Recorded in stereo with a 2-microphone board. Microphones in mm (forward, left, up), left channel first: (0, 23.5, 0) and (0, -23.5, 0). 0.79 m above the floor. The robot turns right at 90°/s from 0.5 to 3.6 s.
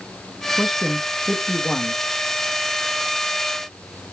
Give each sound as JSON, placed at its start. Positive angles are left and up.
{"t": 0.6, "sound": "a man speaking", "azimuth_deg": -20, "distance_m": 0.9}